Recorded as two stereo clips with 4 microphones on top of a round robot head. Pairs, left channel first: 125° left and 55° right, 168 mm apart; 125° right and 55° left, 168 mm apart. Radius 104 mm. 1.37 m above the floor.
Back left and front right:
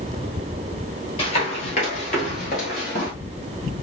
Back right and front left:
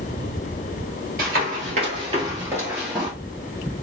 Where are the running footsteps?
80° left, 1.7 m; by 3.1 s 145° left, 1.6 m.